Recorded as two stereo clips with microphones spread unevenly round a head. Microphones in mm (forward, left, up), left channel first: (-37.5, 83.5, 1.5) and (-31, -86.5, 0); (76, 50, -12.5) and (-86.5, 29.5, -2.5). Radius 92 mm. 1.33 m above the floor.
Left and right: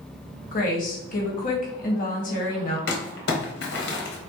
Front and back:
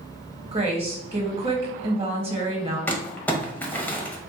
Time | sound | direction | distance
0.5 | a woman speaking | 130° left | 1.2 m
2.9 | crumpling | 90° left | 0.9 m